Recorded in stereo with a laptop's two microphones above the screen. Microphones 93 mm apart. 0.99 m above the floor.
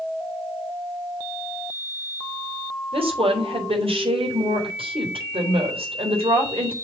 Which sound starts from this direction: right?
A woman speaking, at 2.9 s.